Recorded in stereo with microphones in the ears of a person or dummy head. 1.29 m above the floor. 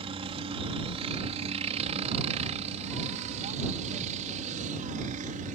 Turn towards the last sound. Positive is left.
turn(degrees=-45)  # may be behind; listen again after turning